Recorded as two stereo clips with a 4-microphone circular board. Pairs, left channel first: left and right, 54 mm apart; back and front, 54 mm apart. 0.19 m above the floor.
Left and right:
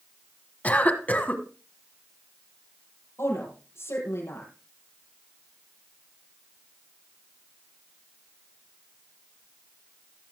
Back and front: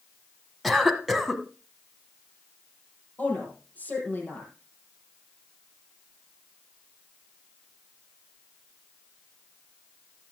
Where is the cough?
90° left, 1.4 m.